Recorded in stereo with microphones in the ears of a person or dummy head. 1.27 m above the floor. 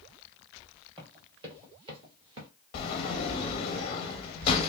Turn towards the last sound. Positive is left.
turn(degrees=30)  # may be behind; listen again after turning